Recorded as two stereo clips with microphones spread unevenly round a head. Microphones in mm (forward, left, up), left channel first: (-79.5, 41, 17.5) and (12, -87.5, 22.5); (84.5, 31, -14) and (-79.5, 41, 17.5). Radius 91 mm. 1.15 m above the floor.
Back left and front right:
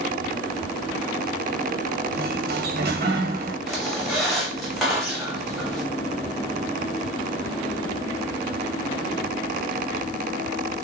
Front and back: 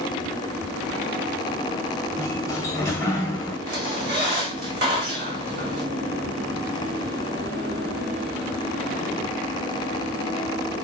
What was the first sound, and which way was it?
A sliding door, 75° right.